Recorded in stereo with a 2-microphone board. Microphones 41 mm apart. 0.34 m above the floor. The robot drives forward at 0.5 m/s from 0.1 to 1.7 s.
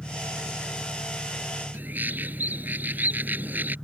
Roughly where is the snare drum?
No snare drum in this recording.